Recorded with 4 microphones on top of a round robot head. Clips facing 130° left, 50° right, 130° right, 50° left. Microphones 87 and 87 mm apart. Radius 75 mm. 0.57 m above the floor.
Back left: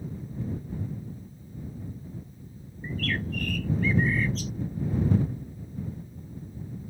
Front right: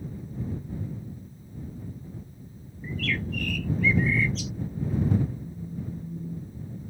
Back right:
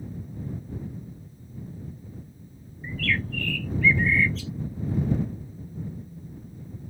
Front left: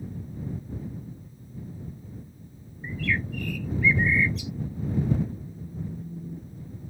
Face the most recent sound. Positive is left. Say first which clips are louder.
# front right 2 dB, front left 1 dB
turn(degrees=-5)